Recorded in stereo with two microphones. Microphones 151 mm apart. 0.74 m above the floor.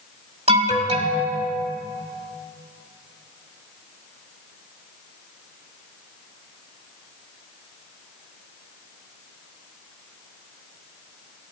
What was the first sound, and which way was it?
An alarm, 45° right (ahead or behind).